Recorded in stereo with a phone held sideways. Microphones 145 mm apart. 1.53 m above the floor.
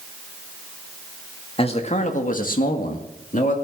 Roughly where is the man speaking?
Left.